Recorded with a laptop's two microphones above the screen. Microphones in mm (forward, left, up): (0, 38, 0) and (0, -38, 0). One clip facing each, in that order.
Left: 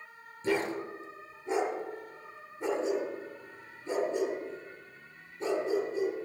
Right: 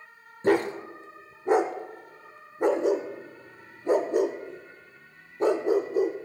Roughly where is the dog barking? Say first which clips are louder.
Right 7 dB; right.